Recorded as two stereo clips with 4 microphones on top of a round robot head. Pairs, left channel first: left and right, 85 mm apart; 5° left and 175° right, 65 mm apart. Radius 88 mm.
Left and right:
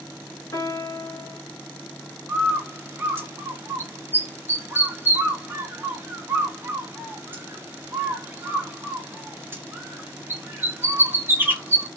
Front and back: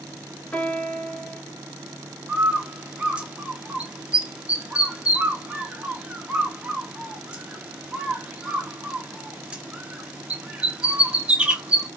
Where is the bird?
125° right, 1.2 m.